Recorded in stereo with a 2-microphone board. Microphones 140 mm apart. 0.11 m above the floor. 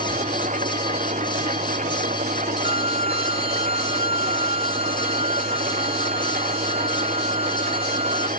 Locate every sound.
0.0 s an engine running: 60° right (ahead or behind)
2.6 s a violin: 40° right (ahead or behind)